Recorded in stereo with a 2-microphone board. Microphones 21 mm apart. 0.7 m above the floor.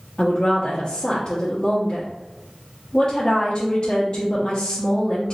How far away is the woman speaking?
About 1.0 m.